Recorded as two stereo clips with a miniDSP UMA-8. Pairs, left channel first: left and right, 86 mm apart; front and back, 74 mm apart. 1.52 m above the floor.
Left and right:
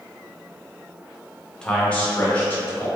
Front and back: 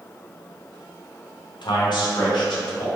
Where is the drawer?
No drawer in this recording.